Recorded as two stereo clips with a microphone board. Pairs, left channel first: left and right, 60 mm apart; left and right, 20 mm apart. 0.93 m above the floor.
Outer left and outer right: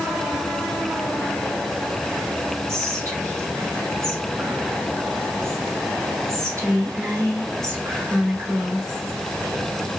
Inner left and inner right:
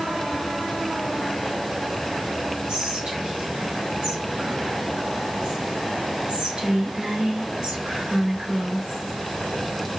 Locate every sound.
2.7 s whispering: 60° right (ahead or behind), 3 m